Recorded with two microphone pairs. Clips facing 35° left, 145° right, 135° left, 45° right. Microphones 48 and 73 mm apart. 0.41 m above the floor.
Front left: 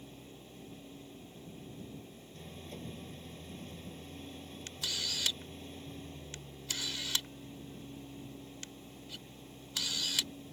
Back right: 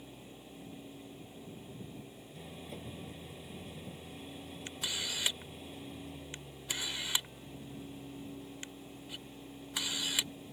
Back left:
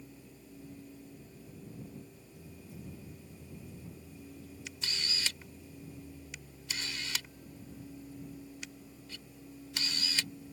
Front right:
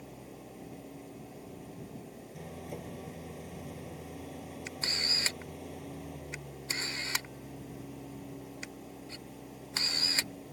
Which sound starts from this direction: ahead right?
An engine running, at 0.0 s.